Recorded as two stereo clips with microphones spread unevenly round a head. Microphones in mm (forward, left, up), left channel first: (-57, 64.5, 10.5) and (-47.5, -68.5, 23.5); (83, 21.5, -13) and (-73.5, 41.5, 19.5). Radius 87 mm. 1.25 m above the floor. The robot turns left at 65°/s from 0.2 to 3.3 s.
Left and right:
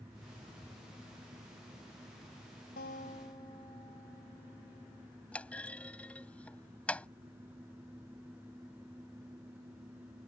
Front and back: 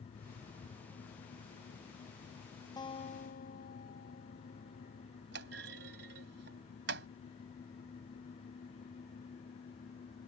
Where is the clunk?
175° left.